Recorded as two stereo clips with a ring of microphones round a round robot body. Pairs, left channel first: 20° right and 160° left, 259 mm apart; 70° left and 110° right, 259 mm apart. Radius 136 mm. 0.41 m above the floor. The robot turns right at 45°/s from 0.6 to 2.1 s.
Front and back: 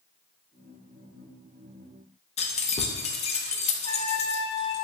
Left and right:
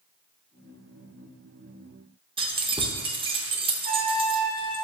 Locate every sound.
2.4 s keys jangling: 60° right, 0.5 m
3.8 s a trumpet: 80° right, 1.1 m